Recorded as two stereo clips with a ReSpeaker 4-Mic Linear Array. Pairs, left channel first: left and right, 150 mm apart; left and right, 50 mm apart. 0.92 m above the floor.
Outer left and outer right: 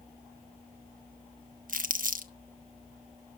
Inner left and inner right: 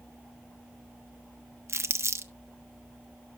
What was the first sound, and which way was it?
Crumpling, 65° right (ahead or behind).